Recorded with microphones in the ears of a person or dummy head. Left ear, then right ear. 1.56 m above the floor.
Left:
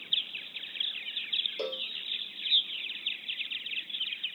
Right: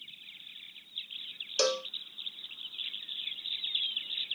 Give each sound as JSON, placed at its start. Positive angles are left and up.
{"t": 1.6, "sound": "a cowbell", "side_deg": -55}